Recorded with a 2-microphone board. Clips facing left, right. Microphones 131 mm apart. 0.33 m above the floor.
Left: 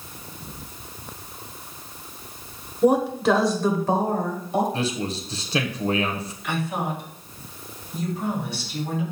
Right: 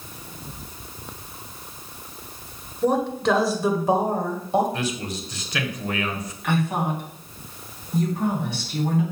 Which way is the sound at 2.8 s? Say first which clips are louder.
Left 3 dB; 15° left (ahead or behind).